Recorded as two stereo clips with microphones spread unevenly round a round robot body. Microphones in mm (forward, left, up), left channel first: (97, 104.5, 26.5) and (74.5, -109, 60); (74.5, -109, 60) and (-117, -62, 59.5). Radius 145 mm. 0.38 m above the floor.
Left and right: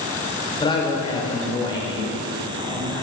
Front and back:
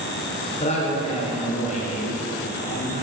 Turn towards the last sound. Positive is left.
turn(degrees=30)